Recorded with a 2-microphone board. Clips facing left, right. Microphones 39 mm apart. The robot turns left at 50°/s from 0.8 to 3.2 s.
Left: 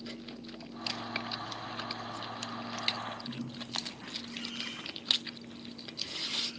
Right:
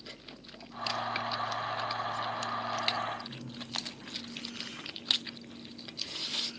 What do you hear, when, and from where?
3.3 s a bird: 75° left (ahead or behind), 6 m